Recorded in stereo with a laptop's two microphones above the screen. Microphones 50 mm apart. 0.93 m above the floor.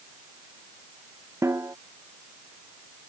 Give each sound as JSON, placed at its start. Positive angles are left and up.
{"t": 1.4, "sound": "a snare drum", "side_deg": -75}